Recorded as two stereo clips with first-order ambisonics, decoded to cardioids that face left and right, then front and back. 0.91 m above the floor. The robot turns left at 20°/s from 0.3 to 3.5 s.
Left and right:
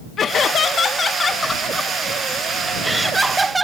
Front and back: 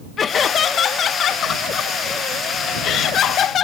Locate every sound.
0.2 s laughter: 45° left; by 3.6 s 15° right